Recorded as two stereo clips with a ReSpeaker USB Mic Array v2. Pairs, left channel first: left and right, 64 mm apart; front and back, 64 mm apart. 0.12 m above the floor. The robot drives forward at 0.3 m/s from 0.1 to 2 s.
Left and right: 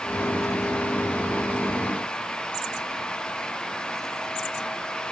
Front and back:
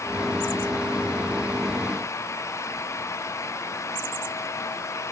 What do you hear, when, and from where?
Only background noise.